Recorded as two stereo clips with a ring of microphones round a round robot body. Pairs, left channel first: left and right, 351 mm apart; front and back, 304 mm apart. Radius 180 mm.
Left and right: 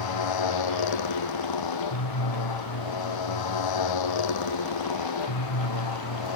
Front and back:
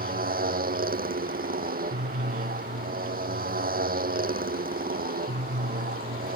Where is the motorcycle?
120° left.